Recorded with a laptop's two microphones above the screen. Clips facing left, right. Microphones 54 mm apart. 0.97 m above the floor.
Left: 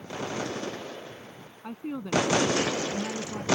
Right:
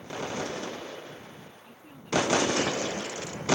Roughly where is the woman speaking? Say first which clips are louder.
Left 6 dB; left.